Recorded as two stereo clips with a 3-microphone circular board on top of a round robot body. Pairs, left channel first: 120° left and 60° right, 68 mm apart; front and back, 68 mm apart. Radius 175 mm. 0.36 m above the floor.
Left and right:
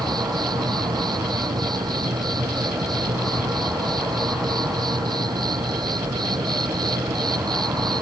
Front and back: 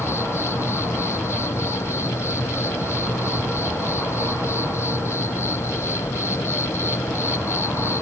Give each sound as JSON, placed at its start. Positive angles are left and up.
{"t": 0.0, "sound": "an insect", "azimuth_deg": -50}